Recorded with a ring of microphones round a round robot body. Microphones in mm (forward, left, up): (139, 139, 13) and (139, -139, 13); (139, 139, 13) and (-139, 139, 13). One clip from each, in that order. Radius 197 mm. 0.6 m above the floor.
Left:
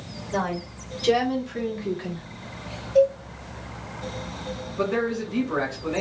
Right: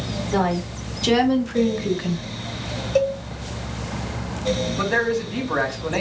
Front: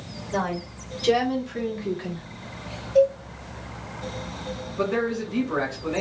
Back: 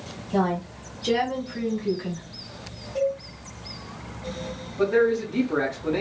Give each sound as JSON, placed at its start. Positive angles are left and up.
{"t": 0.3, "sound": "a woman speaking", "azimuth_deg": -45, "distance_m": 1.9}
{"t": 3.0, "sound": "a cowbell", "azimuth_deg": -85, "distance_m": 1.6}
{"t": 4.8, "sound": "a man speaking", "azimuth_deg": -40, "distance_m": 2.5}